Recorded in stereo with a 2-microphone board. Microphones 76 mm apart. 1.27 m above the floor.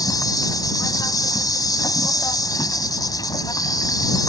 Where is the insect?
55° left (ahead or behind).